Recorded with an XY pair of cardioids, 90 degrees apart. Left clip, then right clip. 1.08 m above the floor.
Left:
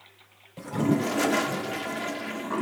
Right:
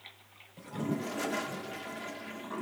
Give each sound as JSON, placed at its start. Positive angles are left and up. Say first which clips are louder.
{"t": 0.6, "sound": "a toilet flushing", "louder": "left 10 dB", "azimuth_deg": 70}